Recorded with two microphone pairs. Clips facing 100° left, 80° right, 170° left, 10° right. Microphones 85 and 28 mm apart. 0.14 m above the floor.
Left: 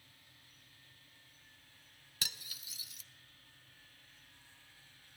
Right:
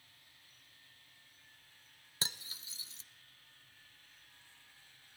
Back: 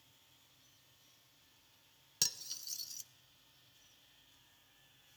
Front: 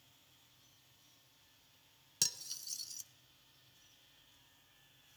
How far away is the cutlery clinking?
About 0.7 m.